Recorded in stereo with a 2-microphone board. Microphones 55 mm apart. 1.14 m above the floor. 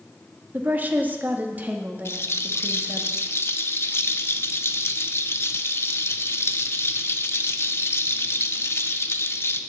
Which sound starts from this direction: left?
A rattle, at 2.0 s.